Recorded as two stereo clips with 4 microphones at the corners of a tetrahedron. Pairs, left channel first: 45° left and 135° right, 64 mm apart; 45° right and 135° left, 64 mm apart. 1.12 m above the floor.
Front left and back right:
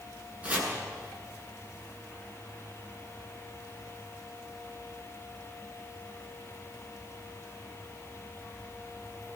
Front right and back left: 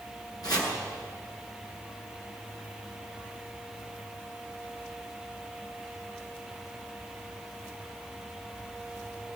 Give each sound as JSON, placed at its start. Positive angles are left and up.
{"t": 0.4, "sound": "chopping", "azimuth_deg": -70, "distance_m": 9.0}